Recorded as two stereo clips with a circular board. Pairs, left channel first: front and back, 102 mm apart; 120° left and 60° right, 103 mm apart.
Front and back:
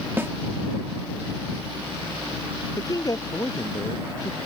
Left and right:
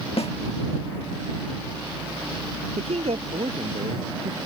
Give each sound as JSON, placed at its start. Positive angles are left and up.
{"t": 0.2, "sound": "a snare drum", "azimuth_deg": 110}
{"t": 2.8, "sound": "a man speaking", "azimuth_deg": -55}